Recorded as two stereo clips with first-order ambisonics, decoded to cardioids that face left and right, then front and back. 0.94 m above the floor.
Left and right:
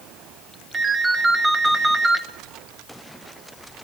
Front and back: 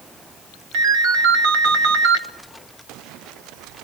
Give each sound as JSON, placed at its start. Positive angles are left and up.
{"t": 0.7, "sound": "a ringtone", "azimuth_deg": -165, "distance_m": 1.0}